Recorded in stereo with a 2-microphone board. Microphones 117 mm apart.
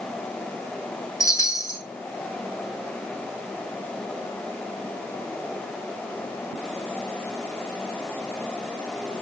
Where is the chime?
30° left (ahead or behind), 0.8 m.